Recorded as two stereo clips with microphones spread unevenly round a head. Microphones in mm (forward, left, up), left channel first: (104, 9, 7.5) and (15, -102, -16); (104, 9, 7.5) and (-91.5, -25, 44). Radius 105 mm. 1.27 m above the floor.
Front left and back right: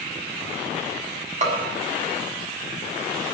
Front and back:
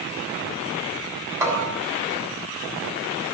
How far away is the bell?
About 6.5 m.